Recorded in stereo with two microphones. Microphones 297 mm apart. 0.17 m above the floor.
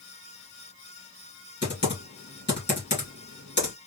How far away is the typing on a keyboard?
About 1.6 m.